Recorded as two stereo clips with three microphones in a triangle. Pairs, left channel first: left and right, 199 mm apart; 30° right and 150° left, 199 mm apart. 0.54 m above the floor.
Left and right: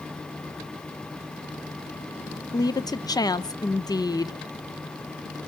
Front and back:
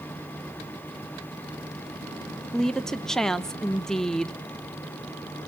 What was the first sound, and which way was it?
A woman speaking, 55° left.